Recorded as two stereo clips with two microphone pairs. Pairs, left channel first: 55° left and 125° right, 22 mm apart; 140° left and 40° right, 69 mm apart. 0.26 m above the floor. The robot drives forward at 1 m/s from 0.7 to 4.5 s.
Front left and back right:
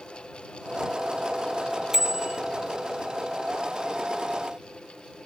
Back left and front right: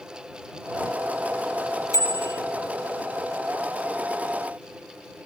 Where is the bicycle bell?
165° left; by 2.4 s 170° left.